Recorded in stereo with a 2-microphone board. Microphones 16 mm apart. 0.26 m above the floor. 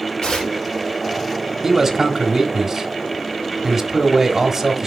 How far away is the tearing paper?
About 4.5 m.